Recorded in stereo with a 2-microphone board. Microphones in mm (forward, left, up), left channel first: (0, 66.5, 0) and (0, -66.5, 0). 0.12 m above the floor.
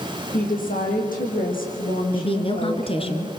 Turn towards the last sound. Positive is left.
turn(degrees=40)  # may be behind; listen again after turning